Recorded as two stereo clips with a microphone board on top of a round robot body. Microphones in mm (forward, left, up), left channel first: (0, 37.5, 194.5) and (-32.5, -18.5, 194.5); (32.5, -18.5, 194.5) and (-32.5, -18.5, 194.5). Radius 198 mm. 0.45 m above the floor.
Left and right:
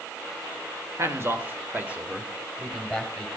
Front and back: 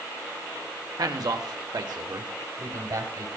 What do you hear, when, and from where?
1.0 s a man speaking: 165° right, 2.5 m; by 3.3 s 155° left, 3 m